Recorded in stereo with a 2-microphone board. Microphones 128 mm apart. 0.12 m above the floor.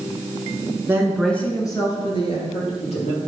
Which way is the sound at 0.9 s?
20° right (ahead or behind).